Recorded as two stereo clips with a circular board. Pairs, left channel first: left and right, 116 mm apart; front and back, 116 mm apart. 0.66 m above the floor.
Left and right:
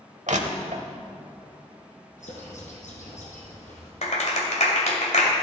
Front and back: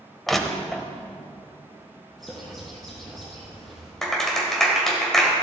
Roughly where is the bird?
Left.